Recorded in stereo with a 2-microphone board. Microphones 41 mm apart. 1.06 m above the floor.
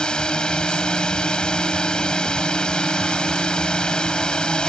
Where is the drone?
20° left (ahead or behind).